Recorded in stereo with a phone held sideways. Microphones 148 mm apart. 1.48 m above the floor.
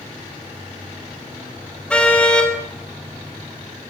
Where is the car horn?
5° left (ahead or behind), 5 m.